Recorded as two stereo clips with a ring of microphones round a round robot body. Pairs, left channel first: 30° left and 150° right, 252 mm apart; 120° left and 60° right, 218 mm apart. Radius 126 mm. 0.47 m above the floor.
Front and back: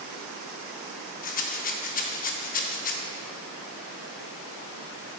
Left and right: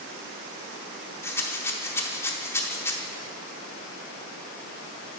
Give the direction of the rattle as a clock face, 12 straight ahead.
10 o'clock.